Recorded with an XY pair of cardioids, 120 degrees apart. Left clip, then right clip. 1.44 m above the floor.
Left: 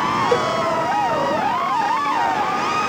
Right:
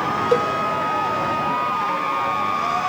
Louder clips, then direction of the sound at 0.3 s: Right 3 dB; 5° right.